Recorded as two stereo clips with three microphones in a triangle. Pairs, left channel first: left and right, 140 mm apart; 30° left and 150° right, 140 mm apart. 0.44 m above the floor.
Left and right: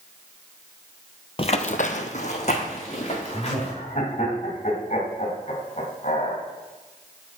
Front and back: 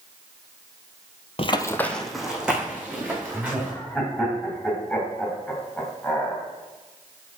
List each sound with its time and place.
1.4 s running footsteps: 60° left, 0.6 m; by 3.7 s 135° left, 3.5 m
3.3 s laughter: 115° left, 2.5 m